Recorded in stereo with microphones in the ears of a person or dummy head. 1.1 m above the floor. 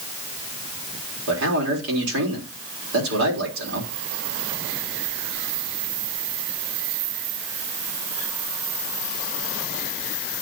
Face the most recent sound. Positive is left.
turn(degrees=-75)  # may be behind; listen again after turning